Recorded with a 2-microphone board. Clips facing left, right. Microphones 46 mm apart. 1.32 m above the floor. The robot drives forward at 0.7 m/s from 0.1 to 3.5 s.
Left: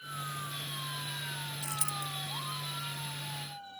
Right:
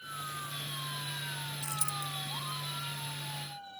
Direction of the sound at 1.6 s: 75° left (ahead or behind).